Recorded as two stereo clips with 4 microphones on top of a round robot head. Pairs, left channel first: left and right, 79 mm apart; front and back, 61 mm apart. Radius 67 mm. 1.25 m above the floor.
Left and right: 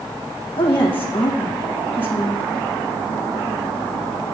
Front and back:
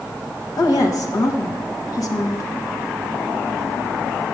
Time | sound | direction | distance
0.6 | a woman speaking | 20° left | 1.3 m